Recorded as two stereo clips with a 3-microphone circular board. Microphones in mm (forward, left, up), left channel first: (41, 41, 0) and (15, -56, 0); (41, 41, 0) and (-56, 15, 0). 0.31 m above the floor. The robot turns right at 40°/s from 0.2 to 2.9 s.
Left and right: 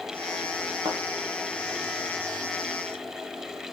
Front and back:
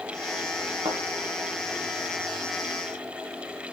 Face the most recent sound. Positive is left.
turn(degrees=-60)